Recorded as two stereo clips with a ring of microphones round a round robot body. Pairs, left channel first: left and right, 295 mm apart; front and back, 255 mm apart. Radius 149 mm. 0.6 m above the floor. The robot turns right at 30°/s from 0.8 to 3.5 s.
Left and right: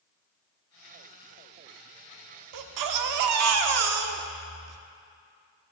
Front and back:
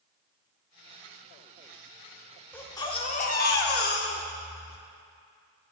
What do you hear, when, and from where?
2.5 s a baby crying: 85° right, 0.7 m; by 4.8 s 55° right, 0.7 m